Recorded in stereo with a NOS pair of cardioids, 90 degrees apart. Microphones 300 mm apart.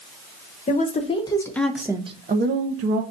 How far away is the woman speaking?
About 1.2 m.